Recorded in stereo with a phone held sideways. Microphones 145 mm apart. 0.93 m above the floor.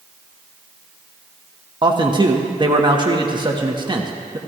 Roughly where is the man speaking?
Right.